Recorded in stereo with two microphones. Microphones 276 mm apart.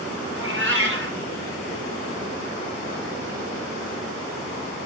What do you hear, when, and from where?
0.3 s a cat meowing: 40° right (ahead or behind), 3 m